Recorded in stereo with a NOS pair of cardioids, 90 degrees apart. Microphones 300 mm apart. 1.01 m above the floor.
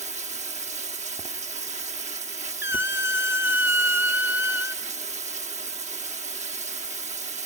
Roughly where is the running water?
Ahead right.